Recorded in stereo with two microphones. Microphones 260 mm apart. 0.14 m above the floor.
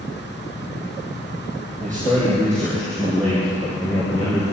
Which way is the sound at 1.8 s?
5° left (ahead or behind).